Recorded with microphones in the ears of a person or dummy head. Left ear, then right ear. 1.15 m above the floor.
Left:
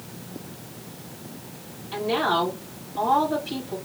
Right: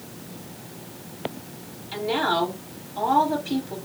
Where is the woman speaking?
70° right (ahead or behind), 1.9 m.